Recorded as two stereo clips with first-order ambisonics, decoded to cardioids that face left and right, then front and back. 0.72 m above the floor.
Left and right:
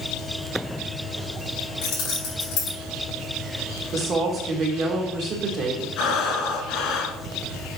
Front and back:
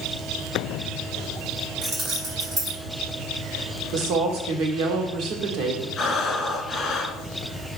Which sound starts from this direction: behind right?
A woman speaking, at 3.9 s.